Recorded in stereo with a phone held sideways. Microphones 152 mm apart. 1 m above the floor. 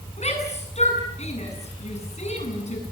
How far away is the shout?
About 9 m.